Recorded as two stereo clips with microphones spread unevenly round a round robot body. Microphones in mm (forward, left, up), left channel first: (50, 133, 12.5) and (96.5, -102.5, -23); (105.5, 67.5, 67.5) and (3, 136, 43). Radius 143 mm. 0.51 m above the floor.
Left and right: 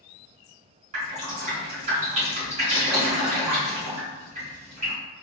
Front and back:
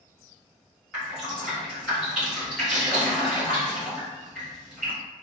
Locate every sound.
0.9 s dripping: 135° right, 1.5 m